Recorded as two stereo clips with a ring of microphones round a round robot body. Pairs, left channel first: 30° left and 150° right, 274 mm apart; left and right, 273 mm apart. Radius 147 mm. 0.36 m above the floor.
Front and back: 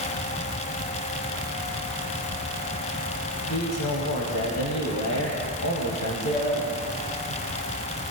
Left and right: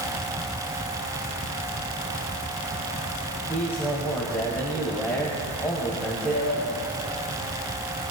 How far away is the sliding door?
About 5.5 m.